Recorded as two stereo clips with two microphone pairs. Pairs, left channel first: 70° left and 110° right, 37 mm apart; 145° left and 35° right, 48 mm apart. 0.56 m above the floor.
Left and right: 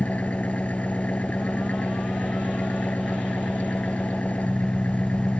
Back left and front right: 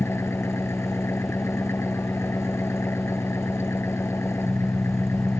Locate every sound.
0.0 s an engine running: 115° left